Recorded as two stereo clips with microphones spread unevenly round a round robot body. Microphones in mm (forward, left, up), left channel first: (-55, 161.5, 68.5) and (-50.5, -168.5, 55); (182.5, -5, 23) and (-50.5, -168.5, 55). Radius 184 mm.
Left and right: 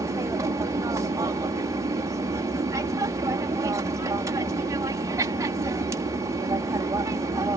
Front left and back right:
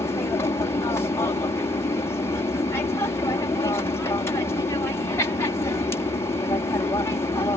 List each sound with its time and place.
0.0 s an aircraft: 25° right